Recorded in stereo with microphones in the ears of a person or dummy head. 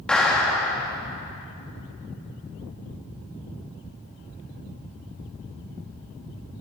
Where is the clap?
5° left (ahead or behind), 3 m.